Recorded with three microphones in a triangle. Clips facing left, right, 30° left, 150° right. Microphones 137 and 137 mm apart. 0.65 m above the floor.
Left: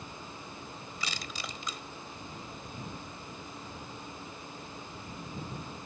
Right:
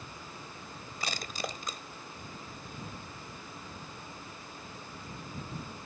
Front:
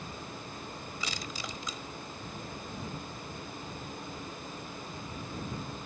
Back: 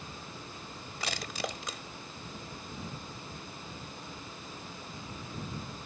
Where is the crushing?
130° right.